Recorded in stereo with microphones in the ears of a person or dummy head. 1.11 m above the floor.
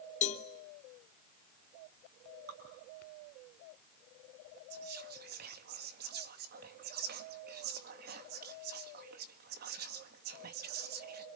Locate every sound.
0.2 s a cowbell: 40° left (ahead or behind), 0.8 m
2.5 s dripping: 55° right (ahead or behind), 7 m
4.7 s whispering: 45° right (ahead or behind), 1.3 m